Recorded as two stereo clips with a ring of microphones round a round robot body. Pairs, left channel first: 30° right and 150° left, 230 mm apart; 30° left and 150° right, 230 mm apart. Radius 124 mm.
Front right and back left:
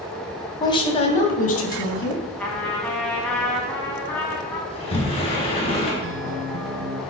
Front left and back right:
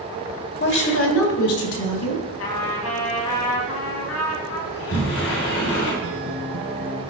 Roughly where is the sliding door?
Ahead left.